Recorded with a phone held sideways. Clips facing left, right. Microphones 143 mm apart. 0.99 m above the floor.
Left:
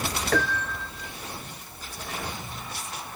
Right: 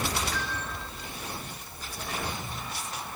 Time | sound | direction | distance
0.3 | a piano | 65° left (ahead or behind) | ?